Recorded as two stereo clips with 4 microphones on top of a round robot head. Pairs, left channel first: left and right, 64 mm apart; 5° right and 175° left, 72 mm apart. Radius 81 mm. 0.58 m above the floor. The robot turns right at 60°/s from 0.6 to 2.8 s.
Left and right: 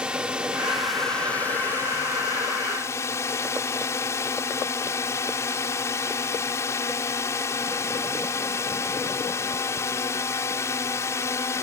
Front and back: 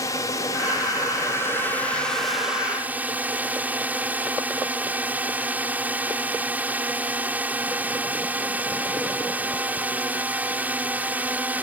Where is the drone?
20° right; by 11.6 s 115° left.